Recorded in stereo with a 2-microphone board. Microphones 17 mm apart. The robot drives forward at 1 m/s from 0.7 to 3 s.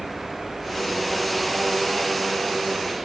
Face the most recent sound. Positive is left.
turn(degrees=-65)  # may be behind; listen again after turning